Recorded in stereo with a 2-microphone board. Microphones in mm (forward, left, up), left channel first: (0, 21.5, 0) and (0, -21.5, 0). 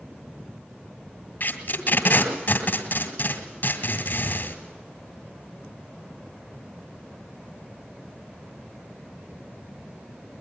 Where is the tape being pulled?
40° left (ahead or behind), 1.9 m.